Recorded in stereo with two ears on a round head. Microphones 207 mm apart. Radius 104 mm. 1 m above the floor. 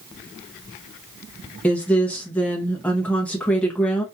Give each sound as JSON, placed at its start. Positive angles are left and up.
{"t": 1.6, "sound": "a woman speaking", "side_deg": 5, "distance_m": 0.9}